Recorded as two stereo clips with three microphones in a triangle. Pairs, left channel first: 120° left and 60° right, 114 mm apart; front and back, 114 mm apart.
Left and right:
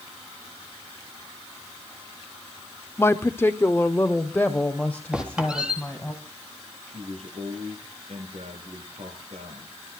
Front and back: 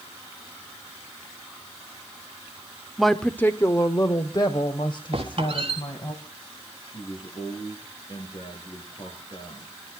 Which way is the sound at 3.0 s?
100° left.